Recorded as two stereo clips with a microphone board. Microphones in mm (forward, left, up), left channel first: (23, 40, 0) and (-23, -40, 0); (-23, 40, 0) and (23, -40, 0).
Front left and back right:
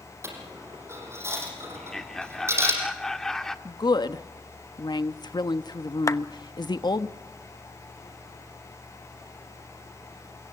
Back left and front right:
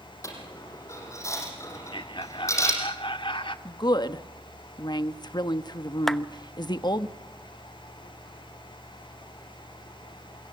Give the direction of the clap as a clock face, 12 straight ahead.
11 o'clock.